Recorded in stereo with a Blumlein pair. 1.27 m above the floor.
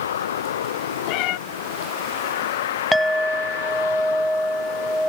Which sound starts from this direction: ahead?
A clink, at 2.9 s.